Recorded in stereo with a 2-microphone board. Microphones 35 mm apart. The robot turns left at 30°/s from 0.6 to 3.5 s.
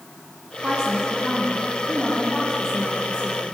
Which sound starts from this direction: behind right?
A woman speaking, at 0.6 s.